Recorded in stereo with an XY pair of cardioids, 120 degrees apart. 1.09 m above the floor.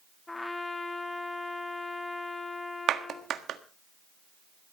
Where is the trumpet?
15° left, 1.6 m.